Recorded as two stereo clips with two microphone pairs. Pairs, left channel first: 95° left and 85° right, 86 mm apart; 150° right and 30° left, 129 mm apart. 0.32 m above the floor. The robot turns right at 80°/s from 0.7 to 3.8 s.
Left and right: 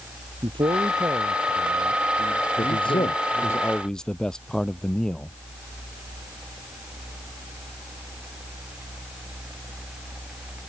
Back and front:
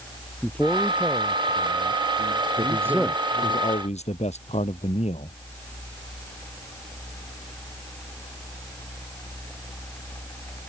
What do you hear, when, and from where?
0.4 s a man speaking: 70° right; by 3.6 s 160° left
2.6 s a man speaking: 80° left; by 5.4 s straight behind